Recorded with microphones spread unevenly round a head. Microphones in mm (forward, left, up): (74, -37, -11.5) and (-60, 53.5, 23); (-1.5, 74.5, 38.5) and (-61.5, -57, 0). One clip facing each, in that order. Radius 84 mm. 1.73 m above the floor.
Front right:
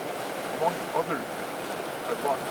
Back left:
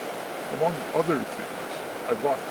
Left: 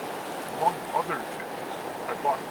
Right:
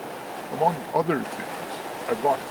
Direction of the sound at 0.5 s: 165° right.